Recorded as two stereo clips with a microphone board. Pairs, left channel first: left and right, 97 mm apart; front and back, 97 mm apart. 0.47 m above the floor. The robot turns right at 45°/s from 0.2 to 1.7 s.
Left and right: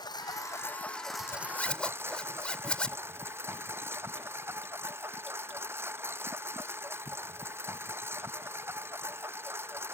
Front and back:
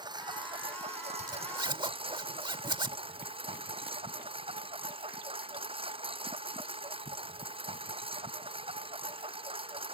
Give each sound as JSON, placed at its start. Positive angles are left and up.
{"t": 0.0, "sound": "a lawn mower", "azimuth_deg": 135}
{"t": 1.2, "sound": "a zipper", "azimuth_deg": 145}